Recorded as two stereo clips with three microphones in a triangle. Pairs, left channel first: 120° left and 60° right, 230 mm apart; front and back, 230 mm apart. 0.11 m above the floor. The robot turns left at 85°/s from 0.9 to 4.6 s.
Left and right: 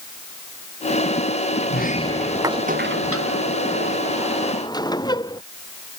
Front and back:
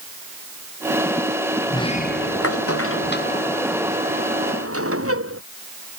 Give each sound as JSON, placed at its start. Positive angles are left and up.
{"t": 1.7, "sound": "a sliding door", "azimuth_deg": 80}